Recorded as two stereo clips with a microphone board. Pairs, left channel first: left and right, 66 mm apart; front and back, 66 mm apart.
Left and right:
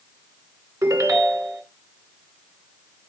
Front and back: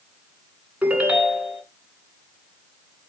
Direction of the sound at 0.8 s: 110° right.